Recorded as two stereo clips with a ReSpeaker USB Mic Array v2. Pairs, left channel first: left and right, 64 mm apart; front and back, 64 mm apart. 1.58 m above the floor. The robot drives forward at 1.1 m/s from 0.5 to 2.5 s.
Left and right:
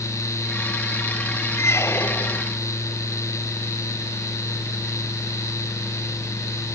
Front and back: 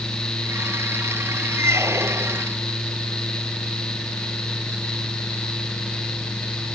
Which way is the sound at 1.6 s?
135° left.